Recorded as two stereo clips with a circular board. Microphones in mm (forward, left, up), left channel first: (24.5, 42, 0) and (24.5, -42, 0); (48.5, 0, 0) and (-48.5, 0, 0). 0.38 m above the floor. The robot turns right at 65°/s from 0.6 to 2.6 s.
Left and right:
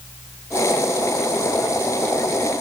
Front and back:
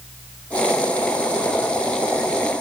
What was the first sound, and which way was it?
Only background noise.